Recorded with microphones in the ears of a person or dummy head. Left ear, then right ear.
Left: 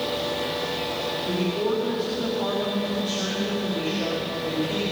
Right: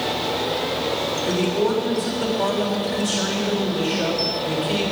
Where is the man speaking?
40° right (ahead or behind), 3.5 m.